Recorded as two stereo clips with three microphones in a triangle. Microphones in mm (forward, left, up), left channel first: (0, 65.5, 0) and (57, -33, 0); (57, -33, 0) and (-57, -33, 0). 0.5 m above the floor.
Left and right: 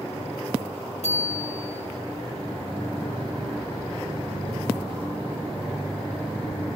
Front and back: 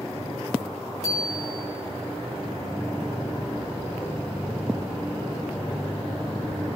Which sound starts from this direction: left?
A bicycle bell, at 1.0 s.